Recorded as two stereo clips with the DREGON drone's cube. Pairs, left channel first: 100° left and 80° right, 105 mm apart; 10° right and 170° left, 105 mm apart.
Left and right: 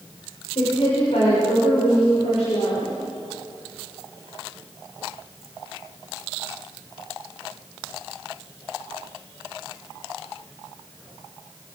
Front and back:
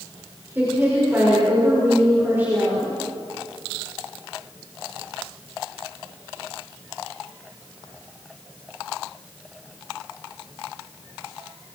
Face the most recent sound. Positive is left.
turn(degrees=100)